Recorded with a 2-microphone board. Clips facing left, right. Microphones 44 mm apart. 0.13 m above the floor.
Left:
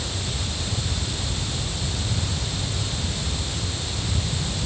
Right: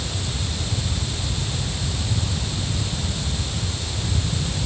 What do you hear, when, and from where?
Only background noise.